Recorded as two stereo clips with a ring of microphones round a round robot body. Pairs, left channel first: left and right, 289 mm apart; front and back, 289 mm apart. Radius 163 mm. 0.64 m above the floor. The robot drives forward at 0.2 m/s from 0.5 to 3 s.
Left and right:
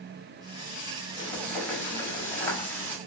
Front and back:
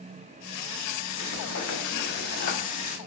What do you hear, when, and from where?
1.2 s frying: 5° left, 0.9 m; by 3.0 s 15° left, 0.7 m